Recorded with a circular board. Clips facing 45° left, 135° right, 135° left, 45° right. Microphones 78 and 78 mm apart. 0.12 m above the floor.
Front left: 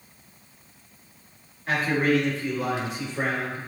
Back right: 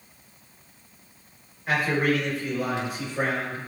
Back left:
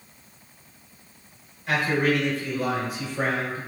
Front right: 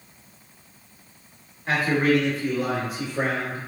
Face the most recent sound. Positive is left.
turn(degrees=-55)